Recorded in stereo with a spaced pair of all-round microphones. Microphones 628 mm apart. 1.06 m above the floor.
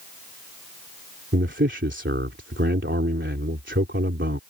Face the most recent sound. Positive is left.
turn(degrees=-15)  # may be behind; listen again after turning